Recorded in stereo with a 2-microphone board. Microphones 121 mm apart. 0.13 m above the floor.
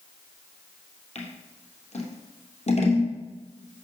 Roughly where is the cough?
No cough in this recording.